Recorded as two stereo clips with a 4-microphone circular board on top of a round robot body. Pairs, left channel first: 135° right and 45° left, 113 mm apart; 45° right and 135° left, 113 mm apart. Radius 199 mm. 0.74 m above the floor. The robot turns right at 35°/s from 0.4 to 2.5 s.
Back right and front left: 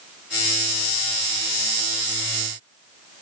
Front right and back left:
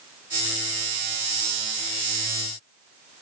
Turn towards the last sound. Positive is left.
No sound to turn to.